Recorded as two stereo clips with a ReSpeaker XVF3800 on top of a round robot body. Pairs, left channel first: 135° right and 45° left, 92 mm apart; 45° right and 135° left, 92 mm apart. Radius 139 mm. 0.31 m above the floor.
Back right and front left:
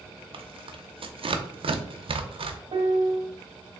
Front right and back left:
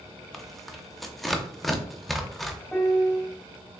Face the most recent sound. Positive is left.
turn(degrees=35)